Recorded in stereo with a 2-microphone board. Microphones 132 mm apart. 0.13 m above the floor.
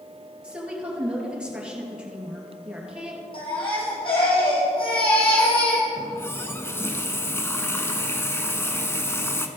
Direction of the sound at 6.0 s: 20° left (ahead or behind).